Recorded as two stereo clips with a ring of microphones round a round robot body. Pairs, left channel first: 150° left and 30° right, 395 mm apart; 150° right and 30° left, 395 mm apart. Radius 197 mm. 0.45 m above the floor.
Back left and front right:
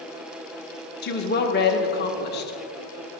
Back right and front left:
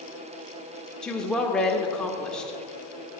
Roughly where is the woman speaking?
Behind left.